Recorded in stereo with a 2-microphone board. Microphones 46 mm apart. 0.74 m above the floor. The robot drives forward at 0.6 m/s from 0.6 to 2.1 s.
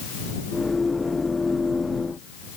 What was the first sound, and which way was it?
Only background noise.